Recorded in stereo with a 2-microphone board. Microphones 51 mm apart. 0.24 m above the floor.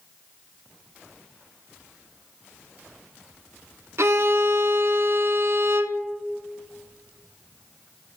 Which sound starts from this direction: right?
A violin, at 4.0 s.